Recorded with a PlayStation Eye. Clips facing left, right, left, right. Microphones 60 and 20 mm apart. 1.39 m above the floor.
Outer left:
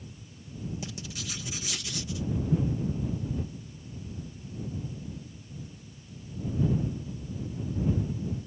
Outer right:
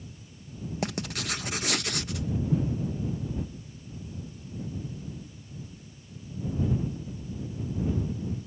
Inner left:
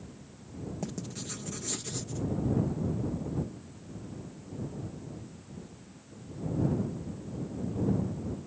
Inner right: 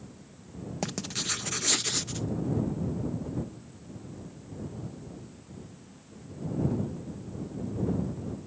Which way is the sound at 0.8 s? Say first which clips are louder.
Outer right 7 dB, inner right 10 dB; 60° right (ahead or behind).